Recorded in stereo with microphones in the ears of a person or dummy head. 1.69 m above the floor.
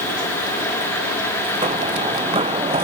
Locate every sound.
1.6 s running footsteps: 35° right (ahead or behind)